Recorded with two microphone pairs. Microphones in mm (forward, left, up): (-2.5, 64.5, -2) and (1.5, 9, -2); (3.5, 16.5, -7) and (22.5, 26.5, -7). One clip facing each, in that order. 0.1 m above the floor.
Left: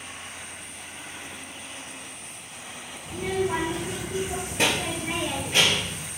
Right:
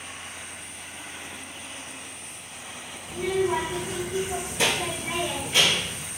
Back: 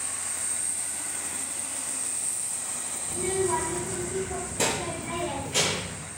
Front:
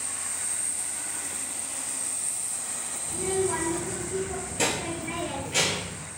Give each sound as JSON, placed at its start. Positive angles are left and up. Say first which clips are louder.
{"t": 3.1, "sound": "a child speaking", "louder": "right 2 dB, even", "azimuth_deg": 100, "distance_m": 1.1}